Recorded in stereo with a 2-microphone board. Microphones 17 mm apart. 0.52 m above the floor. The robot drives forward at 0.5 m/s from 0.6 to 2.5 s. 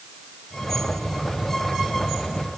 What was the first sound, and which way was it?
Only background noise.